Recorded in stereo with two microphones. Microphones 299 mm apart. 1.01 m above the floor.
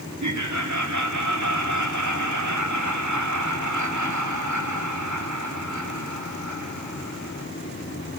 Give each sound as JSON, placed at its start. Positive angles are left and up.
{"t": 0.2, "sound": "laughter", "side_deg": -75, "distance_m": 3.0}